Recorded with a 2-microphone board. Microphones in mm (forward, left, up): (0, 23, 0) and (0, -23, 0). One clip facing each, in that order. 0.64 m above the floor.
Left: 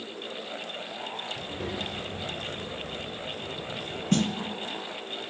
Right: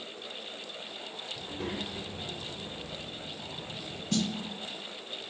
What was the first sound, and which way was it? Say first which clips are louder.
A child speaking: left 3 dB; 10° left (ahead or behind).